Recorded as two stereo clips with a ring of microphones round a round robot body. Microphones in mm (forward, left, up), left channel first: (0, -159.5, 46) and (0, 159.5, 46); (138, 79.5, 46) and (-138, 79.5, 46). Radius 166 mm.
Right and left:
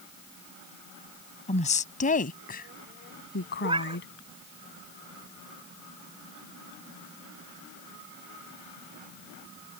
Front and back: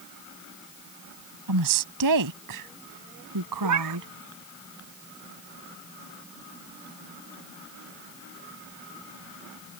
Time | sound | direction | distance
1.5 | a woman speaking | 160° right | ?
3.6 | a cat meowing | 165° left | ?